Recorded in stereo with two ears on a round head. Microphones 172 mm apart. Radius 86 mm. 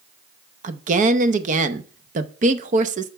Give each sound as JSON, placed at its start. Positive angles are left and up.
{"t": 0.6, "sound": "a woman speaking", "side_deg": -40, "distance_m": 0.7}